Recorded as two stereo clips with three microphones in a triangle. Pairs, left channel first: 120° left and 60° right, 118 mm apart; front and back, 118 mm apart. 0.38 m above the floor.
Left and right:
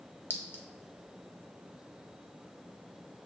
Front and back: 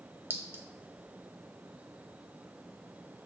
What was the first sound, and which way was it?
A clink, 155° left.